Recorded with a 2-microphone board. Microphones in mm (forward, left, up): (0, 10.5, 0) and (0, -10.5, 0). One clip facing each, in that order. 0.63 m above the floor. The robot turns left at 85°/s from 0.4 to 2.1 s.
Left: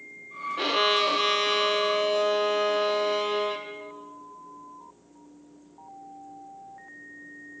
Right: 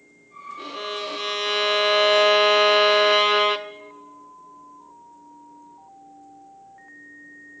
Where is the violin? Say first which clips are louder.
Left 8 dB; 70° left, 0.6 m; by 3.7 s 60° right, 0.6 m.